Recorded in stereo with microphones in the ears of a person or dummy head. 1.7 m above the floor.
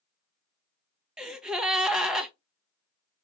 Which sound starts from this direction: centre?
A gasp, at 1.2 s.